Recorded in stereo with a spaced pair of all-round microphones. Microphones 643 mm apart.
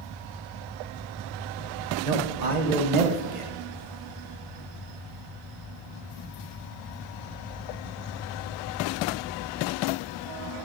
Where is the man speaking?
85° right, 1.0 m.